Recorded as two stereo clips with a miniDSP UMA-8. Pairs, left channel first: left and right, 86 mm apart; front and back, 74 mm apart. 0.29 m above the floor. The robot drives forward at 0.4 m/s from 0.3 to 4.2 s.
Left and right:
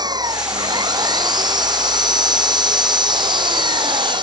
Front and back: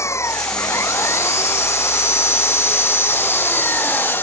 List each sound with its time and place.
0.0 s an engine running: 50° right; by 4.2 s 60° right